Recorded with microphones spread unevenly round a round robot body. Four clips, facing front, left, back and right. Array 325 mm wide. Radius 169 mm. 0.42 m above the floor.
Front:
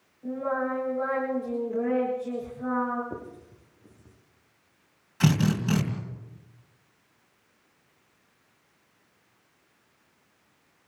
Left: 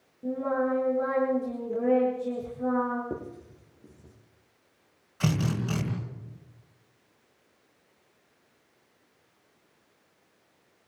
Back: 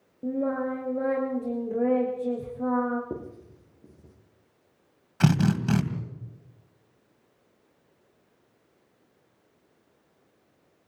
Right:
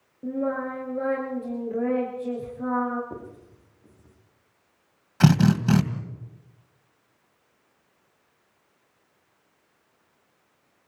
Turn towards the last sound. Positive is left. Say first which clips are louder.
# right 9 dB, back 1 dB
turn(degrees=-105)